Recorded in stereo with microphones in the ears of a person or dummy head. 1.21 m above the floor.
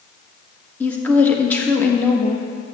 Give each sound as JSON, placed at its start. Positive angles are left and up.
{"t": 0.8, "sound": "a woman speaking", "side_deg": 10, "distance_m": 1.2}